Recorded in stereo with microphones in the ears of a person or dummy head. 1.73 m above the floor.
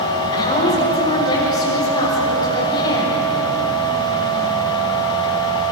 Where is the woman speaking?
20° left (ahead or behind), 7 m.